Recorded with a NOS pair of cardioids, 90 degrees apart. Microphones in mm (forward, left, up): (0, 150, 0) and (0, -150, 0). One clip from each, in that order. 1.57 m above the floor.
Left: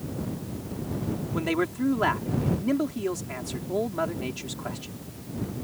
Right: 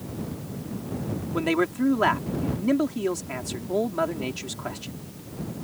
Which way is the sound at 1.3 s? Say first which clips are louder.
Right 3 dB; 20° right.